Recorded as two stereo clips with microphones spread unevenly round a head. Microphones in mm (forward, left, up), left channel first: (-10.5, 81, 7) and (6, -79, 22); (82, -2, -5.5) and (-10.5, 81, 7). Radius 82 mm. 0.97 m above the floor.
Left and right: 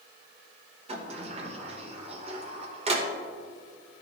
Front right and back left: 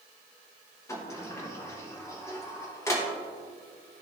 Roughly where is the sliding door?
Right.